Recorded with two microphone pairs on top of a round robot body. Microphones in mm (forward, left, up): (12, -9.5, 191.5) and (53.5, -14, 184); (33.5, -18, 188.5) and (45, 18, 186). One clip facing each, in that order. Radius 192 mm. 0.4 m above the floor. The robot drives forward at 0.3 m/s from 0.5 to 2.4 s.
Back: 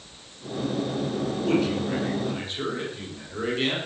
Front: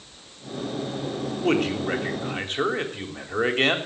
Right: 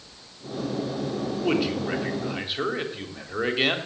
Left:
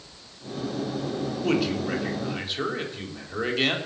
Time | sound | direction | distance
1.4 | a man speaking | 25° right | 3.5 m